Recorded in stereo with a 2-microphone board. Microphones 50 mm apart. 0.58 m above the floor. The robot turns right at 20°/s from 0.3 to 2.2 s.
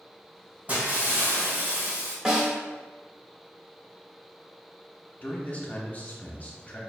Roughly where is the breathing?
I don't hear breathing.